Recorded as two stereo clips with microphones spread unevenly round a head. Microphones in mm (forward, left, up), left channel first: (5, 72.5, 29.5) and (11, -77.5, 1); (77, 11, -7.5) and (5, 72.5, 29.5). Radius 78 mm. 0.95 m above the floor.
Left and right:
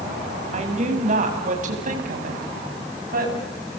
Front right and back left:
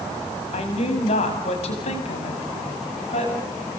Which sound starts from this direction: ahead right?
A woman speaking, at 0.5 s.